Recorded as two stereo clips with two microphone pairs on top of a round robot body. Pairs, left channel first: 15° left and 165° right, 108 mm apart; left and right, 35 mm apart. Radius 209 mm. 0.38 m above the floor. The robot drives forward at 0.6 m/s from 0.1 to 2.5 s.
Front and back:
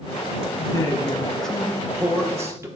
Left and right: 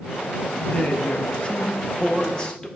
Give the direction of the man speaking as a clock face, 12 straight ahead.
10 o'clock.